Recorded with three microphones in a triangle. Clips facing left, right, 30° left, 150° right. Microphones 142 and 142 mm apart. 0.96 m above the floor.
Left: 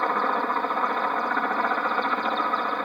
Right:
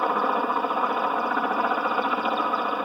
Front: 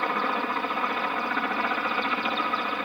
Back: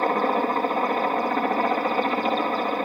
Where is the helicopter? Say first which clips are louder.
Right 1 dB, back 6 dB; 170° right.